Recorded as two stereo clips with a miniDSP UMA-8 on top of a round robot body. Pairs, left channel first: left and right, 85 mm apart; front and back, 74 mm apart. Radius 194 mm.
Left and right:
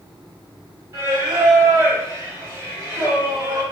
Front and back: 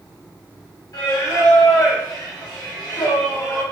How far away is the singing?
About 2 m.